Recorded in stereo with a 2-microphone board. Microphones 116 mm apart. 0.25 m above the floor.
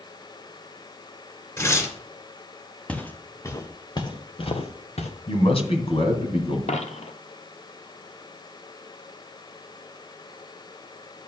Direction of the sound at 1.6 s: 25° left (ahead or behind).